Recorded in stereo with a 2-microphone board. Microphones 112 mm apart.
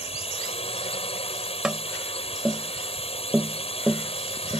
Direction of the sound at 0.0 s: 60° left (ahead or behind).